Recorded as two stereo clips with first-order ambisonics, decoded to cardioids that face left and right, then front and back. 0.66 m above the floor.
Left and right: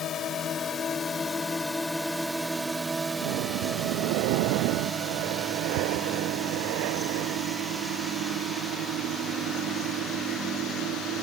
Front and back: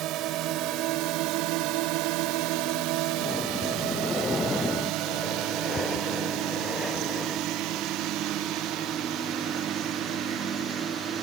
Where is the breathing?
75° right.